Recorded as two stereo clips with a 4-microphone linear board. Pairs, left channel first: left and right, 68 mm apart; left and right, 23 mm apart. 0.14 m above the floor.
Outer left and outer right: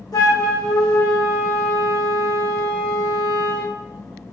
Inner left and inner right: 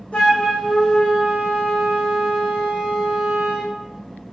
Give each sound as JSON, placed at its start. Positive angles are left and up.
{"t": 0.1, "sound": "a flute", "side_deg": 65, "distance_m": 3.5}